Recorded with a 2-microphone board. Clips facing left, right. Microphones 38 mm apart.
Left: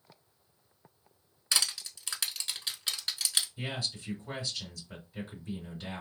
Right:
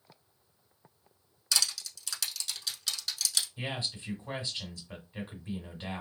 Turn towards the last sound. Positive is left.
turn(degrees=-35)  # may be behind; listen again after turning